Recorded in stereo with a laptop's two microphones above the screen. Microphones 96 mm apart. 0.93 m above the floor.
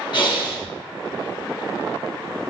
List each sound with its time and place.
0.1 s breathing: 60° left (ahead or behind), 2 m